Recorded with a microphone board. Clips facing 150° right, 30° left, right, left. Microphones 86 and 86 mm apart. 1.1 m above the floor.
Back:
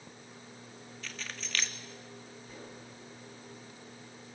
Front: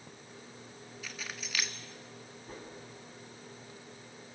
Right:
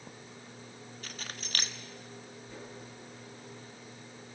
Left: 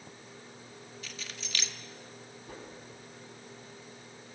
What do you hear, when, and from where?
1.0 s keys jangling: 50° right, 1.6 m
2.5 s a whoosh: 75° left, 9.5 m